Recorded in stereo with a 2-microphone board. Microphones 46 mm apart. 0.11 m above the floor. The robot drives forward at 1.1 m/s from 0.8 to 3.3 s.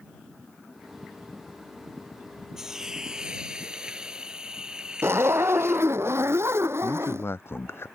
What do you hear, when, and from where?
2.6 s a hiss: 10° right (ahead or behind); by 5.9 s 20° right (ahead or behind)
5.0 s a zipper: 70° right (ahead or behind)
6.8 s a man speaking: 60° left (ahead or behind)